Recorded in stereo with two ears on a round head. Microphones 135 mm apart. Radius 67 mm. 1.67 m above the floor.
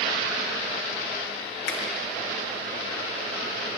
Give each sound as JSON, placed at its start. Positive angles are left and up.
{"t": 1.7, "sound": "a finger snap", "side_deg": 70, "distance_m": 1.5}